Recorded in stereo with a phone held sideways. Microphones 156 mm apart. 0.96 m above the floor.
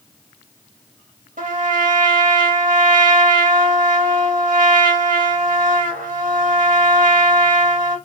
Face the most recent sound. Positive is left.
turn(degrees=-60)  # may be behind; listen again after turning